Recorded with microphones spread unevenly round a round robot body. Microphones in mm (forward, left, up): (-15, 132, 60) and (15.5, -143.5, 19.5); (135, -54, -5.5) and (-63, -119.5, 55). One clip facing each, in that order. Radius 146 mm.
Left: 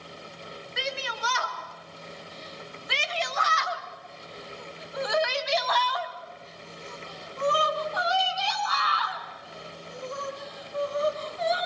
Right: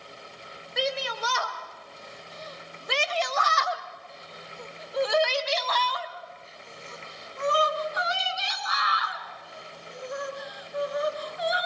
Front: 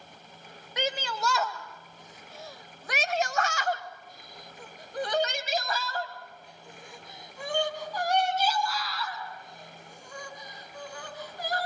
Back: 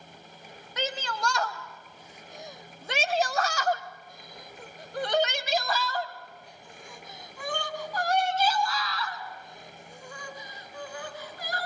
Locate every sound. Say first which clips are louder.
0.8 s a shout: right 6 dB, front 1 dB; 45° right, 1.7 m; by 11.7 s 160° right, 5 m